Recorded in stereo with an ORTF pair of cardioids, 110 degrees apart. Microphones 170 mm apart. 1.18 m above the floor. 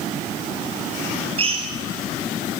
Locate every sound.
1.4 s a drill: 35° right, 5 m